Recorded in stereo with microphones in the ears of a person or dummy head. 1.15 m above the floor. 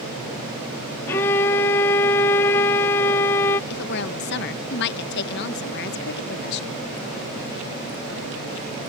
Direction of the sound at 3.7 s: 60° left (ahead or behind).